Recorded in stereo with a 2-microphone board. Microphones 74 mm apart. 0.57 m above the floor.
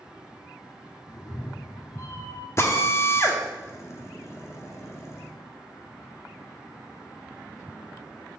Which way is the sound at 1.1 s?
50° left (ahead or behind).